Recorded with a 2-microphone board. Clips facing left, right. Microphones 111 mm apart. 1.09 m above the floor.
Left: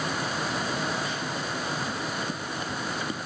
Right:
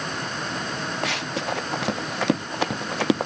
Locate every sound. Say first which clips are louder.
1.0 s running footsteps: right 4 dB; 80° right